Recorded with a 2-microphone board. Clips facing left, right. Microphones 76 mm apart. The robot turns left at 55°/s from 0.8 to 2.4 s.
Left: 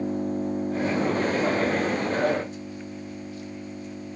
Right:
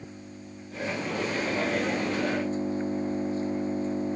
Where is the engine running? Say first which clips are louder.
Left 16 dB; 55° left; by 4.2 s 35° right.